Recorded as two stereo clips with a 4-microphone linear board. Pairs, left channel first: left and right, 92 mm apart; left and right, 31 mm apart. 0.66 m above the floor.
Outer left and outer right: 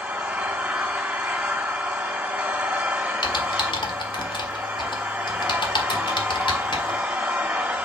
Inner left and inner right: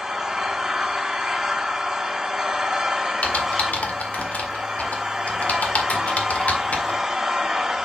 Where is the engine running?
15° right (ahead or behind), 2 m.